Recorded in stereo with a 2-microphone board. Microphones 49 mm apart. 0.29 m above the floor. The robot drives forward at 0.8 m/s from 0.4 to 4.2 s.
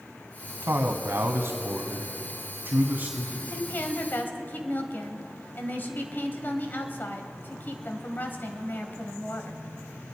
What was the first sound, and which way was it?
A man speaking, 50° right (ahead or behind).